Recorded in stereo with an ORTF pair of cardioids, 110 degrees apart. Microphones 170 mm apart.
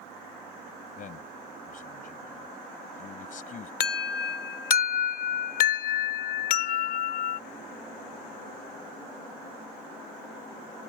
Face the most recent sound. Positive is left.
turn(degrees=60)